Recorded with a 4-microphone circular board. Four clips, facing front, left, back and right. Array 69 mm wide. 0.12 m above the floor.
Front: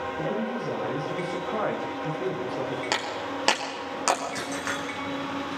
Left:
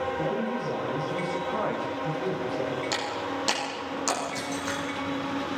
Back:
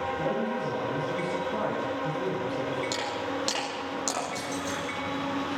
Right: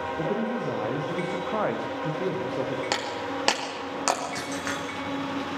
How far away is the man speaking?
About 9 m.